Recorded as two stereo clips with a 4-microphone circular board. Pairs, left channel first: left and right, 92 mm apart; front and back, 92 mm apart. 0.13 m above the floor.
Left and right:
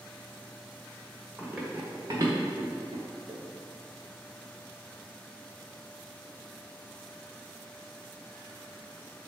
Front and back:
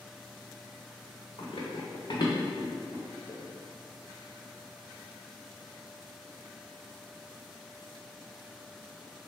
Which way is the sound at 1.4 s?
5° right.